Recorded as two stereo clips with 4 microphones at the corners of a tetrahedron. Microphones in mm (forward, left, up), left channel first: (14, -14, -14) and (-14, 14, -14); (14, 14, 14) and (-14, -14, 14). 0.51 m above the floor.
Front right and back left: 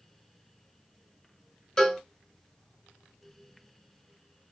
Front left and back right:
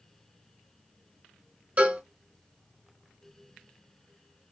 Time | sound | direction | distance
1.8 | a cowbell | 110° right | 1.4 m